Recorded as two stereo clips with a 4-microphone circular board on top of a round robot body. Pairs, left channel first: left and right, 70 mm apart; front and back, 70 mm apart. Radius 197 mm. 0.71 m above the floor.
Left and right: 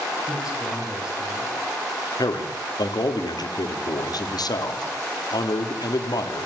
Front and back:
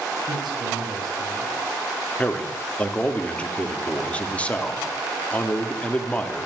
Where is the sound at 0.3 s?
170° right, 7 m.